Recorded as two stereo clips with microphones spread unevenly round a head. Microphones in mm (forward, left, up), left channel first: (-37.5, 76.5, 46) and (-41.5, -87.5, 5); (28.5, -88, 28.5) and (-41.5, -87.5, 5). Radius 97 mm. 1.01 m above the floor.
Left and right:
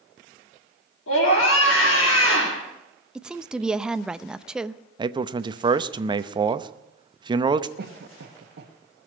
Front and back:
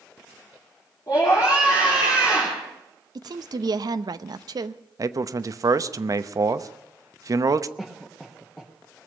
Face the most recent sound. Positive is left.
turn(degrees=-85)